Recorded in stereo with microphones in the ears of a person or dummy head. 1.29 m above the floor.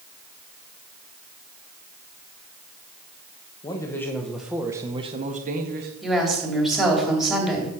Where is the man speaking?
20° left (ahead or behind), 1.5 m; by 5.9 s 50° right (ahead or behind), 1.4 m.